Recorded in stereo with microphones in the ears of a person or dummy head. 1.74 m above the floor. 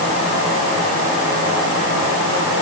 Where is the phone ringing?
No phone ringing in this recording.